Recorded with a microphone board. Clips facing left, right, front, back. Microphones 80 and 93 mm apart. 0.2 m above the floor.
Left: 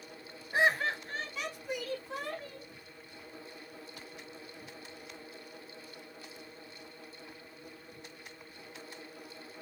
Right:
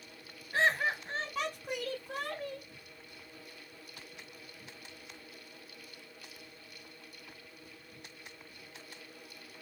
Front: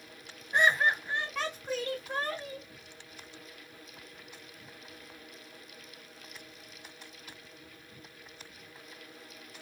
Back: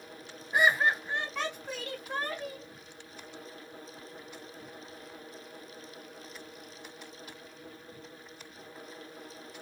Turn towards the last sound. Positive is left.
turn(degrees=-85)